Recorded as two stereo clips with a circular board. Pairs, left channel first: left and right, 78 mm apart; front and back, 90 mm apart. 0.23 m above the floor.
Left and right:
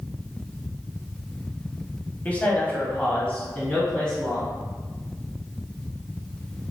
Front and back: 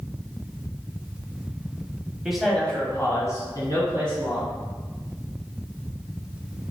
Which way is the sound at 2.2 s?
105° left.